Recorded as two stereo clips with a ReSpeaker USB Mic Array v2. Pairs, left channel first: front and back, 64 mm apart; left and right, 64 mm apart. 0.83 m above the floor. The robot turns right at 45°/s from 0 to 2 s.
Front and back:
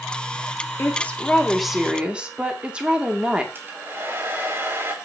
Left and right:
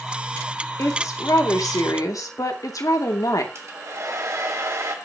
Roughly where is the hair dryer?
Behind right.